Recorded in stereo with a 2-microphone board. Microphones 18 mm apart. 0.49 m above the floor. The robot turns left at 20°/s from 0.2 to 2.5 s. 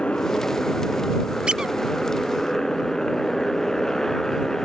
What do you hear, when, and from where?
0.0 s a motorcycle: 70° left; by 4.7 s 25° left
1.5 s a squeak: 60° right (ahead or behind); by 1.7 s 55° right (ahead or behind)